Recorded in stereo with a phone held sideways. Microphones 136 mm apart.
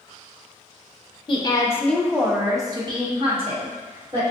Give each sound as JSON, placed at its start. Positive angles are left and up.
{"t": 1.3, "sound": "a woman speaking", "side_deg": 40, "distance_m": 0.7}